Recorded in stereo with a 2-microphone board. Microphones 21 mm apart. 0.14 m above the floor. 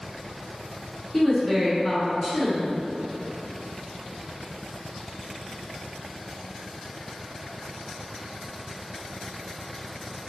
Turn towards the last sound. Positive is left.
turn(degrees=20)  # may be behind; listen again after turning